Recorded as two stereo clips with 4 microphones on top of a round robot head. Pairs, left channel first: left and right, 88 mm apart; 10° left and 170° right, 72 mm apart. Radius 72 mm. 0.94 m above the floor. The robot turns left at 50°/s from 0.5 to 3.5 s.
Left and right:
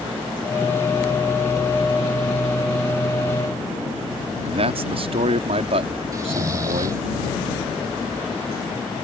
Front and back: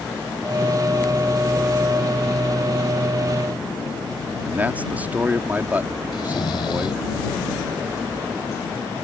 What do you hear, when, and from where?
4.4 s a man speaking: 100° right
6.1 s snoring: 40° right